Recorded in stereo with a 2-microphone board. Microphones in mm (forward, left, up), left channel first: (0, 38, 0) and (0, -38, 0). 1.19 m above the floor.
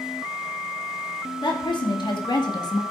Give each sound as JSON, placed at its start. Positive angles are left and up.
{"t": 1.4, "sound": "a woman speaking", "side_deg": 85, "distance_m": 3.0}